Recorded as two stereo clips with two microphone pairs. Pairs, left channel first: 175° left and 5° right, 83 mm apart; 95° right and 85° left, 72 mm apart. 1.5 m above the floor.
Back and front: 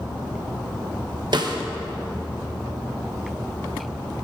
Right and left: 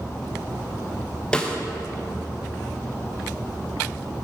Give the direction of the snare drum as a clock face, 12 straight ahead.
12 o'clock.